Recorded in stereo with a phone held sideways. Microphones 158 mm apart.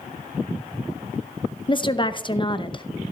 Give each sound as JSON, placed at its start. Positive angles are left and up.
{"t": 1.7, "sound": "a woman speaking", "side_deg": 30, "distance_m": 0.8}